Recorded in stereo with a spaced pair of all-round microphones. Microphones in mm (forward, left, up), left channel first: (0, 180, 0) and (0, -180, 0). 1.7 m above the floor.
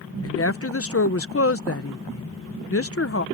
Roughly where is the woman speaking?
Left.